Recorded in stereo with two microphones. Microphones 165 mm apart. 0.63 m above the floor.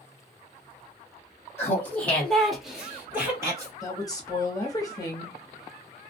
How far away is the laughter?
About 1.5 m.